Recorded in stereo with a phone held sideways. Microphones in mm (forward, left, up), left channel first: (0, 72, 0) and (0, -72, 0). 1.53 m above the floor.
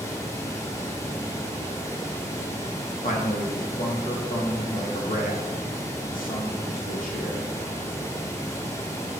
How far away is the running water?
About 1.1 m.